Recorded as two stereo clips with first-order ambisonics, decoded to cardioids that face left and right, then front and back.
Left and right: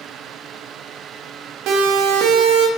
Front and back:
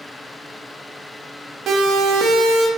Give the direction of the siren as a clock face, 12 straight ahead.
4 o'clock.